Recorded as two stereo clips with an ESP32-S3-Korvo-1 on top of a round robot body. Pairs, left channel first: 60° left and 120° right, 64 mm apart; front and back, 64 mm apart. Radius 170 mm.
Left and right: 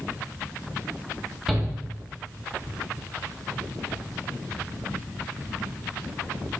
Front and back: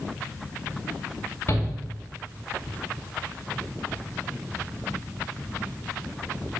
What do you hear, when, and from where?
1.5 s a shout: 45° right, 2.5 m